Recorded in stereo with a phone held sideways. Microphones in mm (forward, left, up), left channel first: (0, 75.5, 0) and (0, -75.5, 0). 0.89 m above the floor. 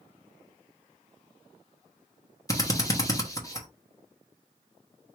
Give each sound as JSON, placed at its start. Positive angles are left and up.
{"t": 2.5, "sound": "a drill", "side_deg": 25, "distance_m": 1.0}